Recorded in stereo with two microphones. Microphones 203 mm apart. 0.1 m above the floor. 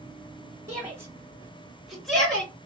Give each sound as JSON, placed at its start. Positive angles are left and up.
{"t": 0.7, "sound": "a shout", "side_deg": -15, "distance_m": 1.8}